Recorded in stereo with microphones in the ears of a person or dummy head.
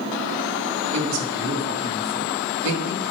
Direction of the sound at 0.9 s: 75° right (ahead or behind).